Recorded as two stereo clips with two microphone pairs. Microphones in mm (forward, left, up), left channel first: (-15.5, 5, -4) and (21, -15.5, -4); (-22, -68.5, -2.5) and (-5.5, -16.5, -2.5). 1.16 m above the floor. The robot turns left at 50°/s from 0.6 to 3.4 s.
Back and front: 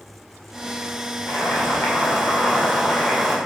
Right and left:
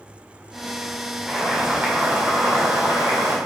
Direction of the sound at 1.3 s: 165° left.